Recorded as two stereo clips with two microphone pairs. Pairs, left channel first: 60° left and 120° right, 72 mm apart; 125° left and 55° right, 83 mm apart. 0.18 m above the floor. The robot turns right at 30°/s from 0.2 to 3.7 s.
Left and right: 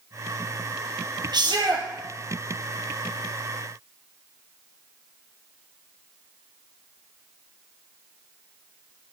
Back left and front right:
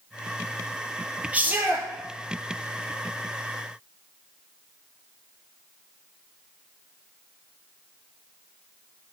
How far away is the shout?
About 4 m.